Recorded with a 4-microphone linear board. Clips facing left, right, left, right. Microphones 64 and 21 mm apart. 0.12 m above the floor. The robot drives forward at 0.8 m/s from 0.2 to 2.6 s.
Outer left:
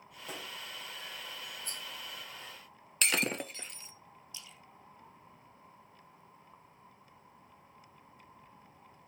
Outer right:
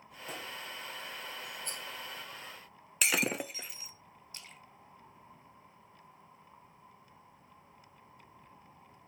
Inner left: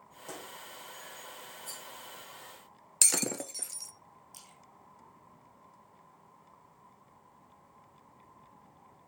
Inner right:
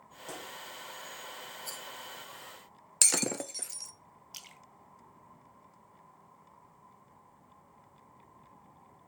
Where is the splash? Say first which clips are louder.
Outer right 2 dB, inner right 8 dB; 55° right (ahead or behind), 1.2 m.